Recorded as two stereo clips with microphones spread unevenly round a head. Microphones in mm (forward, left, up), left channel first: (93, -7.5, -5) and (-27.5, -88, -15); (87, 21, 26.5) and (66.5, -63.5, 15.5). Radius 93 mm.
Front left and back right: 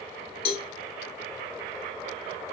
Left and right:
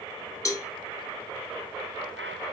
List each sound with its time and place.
0.5 s a cowbell: 20° left, 0.7 m